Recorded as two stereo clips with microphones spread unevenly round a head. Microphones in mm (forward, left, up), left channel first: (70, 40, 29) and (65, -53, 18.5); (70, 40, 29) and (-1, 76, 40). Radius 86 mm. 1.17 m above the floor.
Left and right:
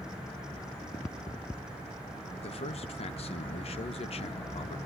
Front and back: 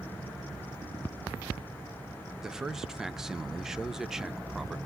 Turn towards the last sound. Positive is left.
turn(degrees=70)